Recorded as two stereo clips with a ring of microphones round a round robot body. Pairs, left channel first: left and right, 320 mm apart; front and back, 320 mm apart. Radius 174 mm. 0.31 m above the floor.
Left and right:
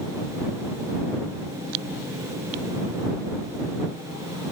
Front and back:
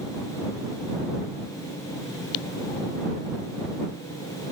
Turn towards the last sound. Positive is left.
No sound to turn to.